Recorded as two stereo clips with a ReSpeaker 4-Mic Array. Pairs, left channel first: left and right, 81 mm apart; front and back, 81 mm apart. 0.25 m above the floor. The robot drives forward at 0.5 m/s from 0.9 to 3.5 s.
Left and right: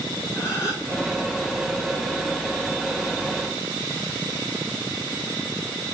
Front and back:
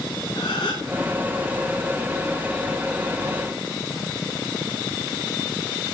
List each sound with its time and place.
0.3 s a gasp: 30° left, 3.5 m